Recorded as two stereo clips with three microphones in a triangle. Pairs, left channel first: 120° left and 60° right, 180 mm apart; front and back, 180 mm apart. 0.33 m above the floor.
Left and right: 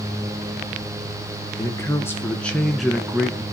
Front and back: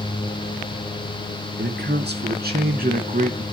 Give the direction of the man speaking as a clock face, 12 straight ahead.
6 o'clock.